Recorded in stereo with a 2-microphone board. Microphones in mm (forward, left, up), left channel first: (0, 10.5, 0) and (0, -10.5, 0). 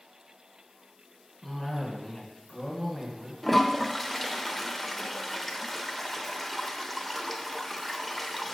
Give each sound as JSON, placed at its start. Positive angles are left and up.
{"t": 1.4, "sound": "a cough", "side_deg": 5, "distance_m": 2.0}
{"t": 3.4, "sound": "a toilet flushing", "side_deg": 0, "distance_m": 0.6}